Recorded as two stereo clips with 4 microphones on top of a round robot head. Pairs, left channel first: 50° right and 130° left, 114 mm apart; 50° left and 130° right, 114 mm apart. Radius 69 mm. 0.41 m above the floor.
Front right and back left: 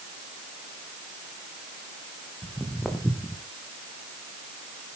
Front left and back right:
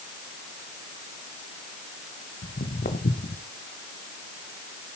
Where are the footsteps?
45° left, 1.9 m; by 3.5 s 30° left, 1.5 m.